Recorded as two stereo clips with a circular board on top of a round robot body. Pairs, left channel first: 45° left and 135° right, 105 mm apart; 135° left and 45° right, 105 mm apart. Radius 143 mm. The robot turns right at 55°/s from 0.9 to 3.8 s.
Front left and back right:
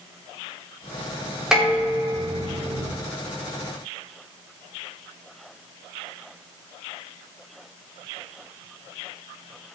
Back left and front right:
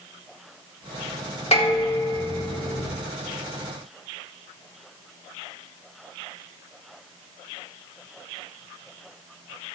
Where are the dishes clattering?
140° left, 6.5 m; by 2.9 s 140° right, 6.5 m.